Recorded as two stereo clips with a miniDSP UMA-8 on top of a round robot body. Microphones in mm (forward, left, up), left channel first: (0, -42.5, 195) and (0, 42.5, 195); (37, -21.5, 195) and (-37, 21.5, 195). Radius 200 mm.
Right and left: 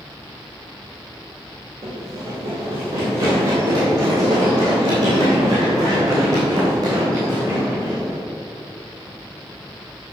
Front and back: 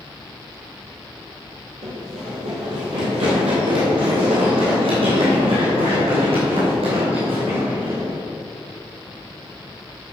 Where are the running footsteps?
145° left, 2 m.